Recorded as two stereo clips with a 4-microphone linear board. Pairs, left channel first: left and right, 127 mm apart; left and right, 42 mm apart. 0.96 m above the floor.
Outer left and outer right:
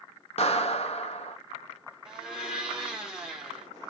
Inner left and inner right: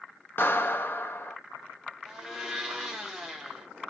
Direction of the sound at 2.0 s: 5° right (ahead or behind).